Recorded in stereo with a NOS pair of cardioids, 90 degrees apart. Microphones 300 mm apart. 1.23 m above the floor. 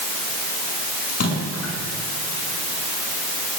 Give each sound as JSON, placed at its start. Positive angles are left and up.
{"t": 1.1, "sound": "a splash", "azimuth_deg": 55, "distance_m": 6.5}